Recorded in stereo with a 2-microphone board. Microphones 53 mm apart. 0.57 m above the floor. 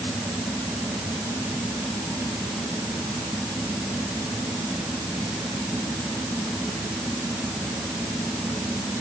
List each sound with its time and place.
Only background noise.